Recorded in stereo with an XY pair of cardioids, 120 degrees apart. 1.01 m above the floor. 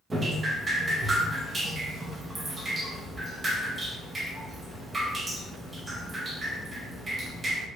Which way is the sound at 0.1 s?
25° right.